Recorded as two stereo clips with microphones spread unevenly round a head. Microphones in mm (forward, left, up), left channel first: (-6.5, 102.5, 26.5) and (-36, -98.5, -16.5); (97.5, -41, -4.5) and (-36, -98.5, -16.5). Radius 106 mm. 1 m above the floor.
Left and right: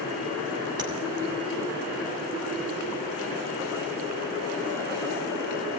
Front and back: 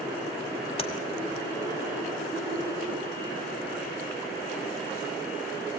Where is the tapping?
25° right, 2.5 m.